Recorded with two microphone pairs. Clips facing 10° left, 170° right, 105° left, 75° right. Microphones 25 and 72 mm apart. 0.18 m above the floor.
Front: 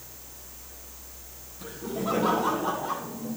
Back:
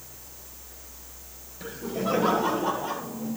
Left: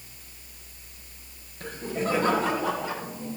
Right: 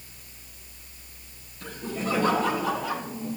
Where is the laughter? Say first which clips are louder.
Back 2 dB, left 2 dB; 145° left, 4 m; by 3.4 s 165° left, 5 m.